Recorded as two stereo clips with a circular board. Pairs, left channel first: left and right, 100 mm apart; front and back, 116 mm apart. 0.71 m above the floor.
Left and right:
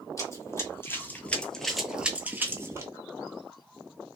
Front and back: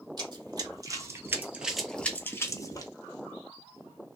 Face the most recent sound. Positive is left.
turn(degrees=-40)